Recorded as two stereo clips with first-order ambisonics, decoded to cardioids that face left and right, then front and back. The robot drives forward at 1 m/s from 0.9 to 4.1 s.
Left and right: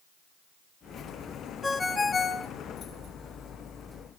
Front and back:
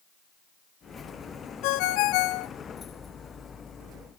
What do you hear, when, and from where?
1.6 s a ringtone: 10° left, 1.3 m; by 2.5 s 30° left, 0.5 m